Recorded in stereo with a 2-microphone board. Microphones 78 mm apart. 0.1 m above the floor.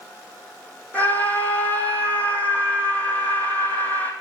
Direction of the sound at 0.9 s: 20° left (ahead or behind).